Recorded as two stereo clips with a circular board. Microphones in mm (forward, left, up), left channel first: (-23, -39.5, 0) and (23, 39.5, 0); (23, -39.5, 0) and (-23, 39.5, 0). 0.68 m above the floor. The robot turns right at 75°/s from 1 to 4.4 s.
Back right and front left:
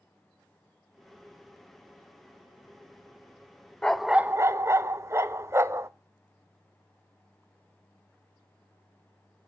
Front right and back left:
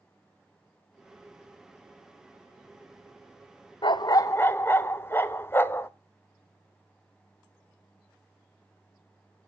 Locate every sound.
3.8 s a dog barking: 40° right, 0.6 m; by 5.9 s 5° left, 0.6 m